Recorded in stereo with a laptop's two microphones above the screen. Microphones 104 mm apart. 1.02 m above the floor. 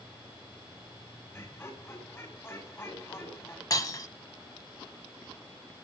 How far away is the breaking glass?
About 1.1 m.